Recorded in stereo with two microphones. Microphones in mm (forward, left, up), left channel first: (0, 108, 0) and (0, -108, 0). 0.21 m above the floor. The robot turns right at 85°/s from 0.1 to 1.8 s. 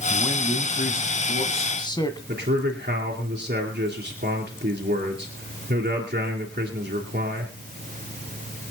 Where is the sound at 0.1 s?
5° left, 1.4 m; by 2.2 s 150° left, 1.4 m.